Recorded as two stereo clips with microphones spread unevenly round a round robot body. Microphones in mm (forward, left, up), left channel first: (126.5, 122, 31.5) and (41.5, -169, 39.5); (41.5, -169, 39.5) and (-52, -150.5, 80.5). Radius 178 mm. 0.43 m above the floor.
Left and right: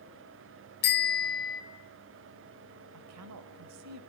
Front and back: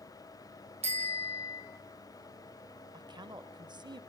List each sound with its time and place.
0.8 s a bicycle bell: 135° left, 2 m
2.9 s a woman speaking: 140° right, 1.9 m